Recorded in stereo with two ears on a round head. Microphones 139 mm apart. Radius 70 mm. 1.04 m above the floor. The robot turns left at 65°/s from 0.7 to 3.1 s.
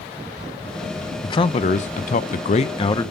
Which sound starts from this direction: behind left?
A man speaking, at 1.2 s.